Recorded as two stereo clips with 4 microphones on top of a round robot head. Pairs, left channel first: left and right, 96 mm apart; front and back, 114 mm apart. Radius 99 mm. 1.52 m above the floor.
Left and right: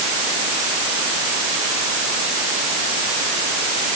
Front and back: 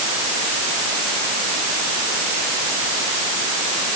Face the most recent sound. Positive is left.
No sound to turn to.